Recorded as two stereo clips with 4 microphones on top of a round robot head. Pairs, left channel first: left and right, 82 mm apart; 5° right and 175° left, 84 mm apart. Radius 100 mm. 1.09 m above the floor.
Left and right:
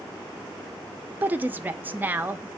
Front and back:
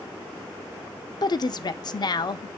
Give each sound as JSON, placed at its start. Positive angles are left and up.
{"t": 1.2, "sound": "a woman speaking", "azimuth_deg": -25, "distance_m": 0.6}